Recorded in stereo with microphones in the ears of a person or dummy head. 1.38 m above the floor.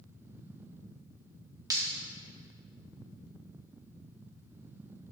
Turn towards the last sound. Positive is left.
turn(degrees=-20)  # may be behind; listen again after turning